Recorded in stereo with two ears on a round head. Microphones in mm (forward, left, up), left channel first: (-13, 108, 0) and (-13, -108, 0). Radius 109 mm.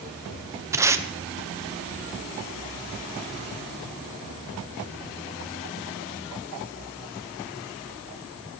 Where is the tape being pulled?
10° right (ahead or behind), 1.0 m.